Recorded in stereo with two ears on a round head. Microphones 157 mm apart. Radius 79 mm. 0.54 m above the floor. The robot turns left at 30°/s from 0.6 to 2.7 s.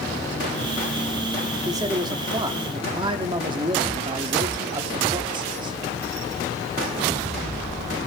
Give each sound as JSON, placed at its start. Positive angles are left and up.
{"t": 1.6, "sound": "a man speaking", "side_deg": -20, "distance_m": 1.0}